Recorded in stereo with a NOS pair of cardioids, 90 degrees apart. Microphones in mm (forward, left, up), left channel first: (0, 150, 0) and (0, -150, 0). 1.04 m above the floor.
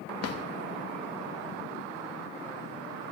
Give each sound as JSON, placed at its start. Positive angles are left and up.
{"t": 0.2, "sound": "a drawer", "azimuth_deg": 55, "distance_m": 1.0}